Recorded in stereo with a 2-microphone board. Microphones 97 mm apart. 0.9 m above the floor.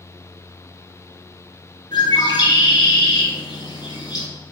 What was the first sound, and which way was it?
A bird, 45° left (ahead or behind).